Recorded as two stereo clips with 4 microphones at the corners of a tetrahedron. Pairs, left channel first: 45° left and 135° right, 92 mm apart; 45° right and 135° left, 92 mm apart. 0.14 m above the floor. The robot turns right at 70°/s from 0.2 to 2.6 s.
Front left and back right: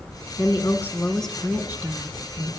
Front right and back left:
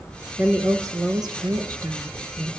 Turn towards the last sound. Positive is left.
turn(degrees=-135)